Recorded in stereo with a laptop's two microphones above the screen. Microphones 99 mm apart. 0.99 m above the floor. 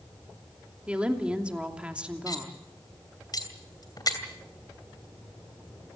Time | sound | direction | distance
0.9 | a woman speaking | 10° right (ahead or behind) | 2.5 m
2.3 | cutlery clinking | 45° left (ahead or behind) | 2.5 m